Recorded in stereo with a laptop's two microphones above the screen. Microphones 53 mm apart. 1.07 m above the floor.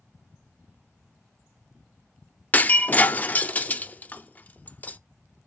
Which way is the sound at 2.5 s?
30° left (ahead or behind).